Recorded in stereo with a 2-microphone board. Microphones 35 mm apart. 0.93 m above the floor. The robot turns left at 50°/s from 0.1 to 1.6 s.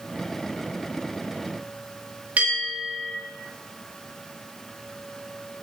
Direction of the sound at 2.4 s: 45° right (ahead or behind).